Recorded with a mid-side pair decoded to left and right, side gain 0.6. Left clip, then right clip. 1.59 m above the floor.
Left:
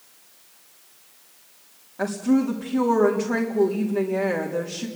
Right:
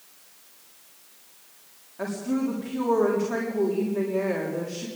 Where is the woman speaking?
30° left, 3.5 m.